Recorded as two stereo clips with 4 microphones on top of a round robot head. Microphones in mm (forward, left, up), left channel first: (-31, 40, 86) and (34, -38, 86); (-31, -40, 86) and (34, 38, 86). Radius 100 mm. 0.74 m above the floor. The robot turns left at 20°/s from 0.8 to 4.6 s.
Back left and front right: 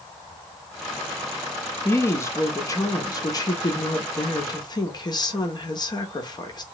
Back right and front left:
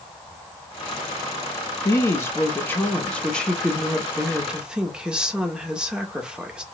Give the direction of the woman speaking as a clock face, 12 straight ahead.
6 o'clock.